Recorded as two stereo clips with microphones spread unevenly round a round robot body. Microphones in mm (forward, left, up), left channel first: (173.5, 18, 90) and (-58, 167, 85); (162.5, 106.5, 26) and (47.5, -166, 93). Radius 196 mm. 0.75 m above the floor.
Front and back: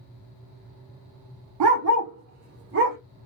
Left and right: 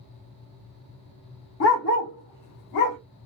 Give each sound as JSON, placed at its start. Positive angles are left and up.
{"t": 1.6, "sound": "a dog barking", "azimuth_deg": 130, "distance_m": 0.8}